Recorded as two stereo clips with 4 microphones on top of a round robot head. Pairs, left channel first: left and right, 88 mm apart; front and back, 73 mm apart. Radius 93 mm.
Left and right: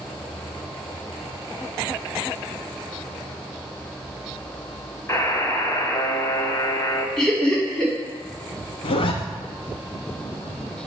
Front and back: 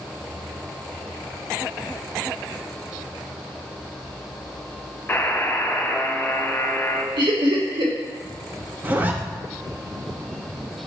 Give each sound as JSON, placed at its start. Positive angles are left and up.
{"t": 5.1, "sound": "a buzzer", "azimuth_deg": 50, "distance_m": 1.1}
{"t": 7.2, "sound": "laughter", "azimuth_deg": 175, "distance_m": 2.5}
{"t": 8.8, "sound": "a zipper", "azimuth_deg": 115, "distance_m": 0.6}